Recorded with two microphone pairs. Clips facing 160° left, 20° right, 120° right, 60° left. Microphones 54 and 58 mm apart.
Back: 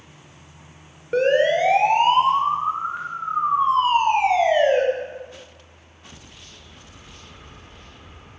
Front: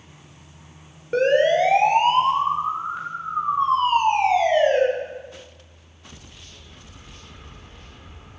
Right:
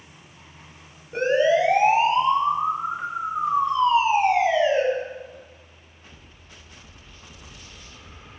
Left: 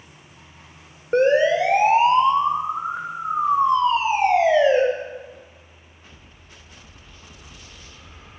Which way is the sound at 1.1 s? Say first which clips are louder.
Even, left 3 dB; 75° left.